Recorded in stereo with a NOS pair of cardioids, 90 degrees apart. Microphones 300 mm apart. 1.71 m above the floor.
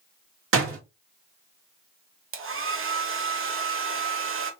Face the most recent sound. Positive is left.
turn(degrees=-45)